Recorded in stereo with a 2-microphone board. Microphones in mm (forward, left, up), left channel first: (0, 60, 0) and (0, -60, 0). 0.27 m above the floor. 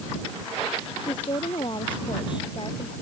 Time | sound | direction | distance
1.0 | a woman speaking | 40° left (ahead or behind) | ?